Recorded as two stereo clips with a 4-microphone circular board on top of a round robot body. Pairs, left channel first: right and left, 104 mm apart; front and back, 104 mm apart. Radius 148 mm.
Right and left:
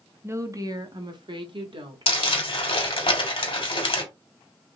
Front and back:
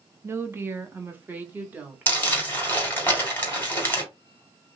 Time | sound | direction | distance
0.2 | a woman speaking | 135° left | 1.0 m
2.1 | crumpling | 70° right | 2.5 m